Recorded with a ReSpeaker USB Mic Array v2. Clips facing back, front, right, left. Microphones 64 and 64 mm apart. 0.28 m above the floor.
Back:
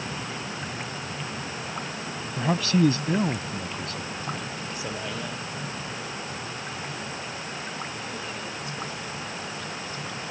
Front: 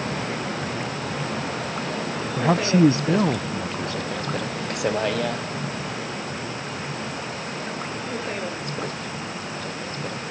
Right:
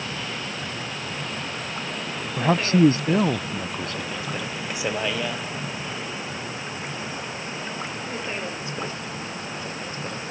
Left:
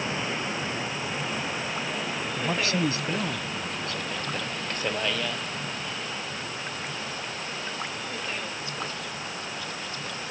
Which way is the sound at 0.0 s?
20° left.